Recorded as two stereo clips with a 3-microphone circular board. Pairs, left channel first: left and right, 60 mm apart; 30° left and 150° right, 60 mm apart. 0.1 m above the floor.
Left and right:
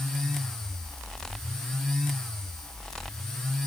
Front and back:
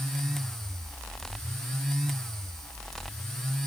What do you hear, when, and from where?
Only background noise.